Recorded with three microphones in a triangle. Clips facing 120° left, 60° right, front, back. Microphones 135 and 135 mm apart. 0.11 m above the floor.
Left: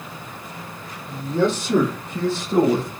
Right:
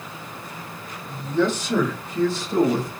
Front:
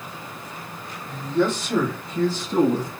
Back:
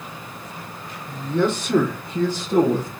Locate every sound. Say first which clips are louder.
1.1 s a man speaking: left 1 dB, back 1 dB; 165° left, 3 m; by 2.9 s 175° right, 1.9 m